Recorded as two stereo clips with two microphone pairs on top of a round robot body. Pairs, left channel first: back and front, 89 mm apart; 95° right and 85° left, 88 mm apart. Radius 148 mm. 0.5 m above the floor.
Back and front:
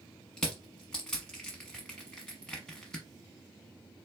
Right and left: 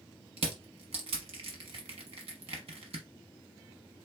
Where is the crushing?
95° left, 0.8 m.